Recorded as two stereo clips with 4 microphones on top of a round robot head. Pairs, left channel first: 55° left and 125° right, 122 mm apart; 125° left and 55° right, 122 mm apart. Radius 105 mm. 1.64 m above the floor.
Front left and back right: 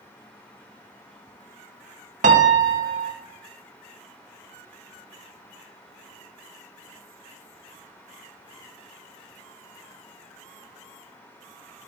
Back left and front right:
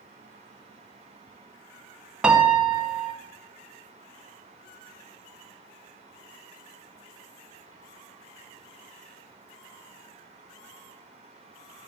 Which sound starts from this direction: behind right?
A piano, at 2.2 s.